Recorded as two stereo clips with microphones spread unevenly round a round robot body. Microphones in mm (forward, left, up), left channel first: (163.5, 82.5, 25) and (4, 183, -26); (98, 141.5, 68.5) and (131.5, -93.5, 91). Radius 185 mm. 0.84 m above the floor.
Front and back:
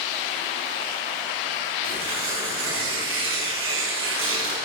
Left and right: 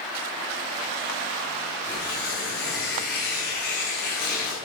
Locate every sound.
1.8 s tearing paper: 160° left, 5 m